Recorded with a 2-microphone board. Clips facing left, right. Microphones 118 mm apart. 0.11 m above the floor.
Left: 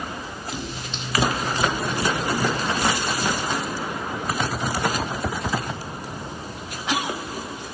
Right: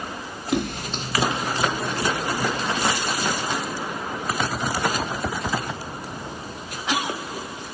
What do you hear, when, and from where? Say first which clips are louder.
0.5 s footsteps: right 7 dB; 60° right (ahead or behind), 1.9 m; by 3.3 s 50° left (ahead or behind), 3 m